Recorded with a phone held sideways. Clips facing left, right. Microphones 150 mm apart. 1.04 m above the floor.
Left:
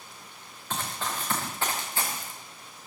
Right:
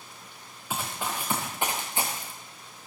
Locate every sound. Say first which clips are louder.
0.7 s running footsteps: right 1 dB; 10° right (ahead or behind), 4 m; by 2.3 s 20° right (ahead or behind), 4.5 m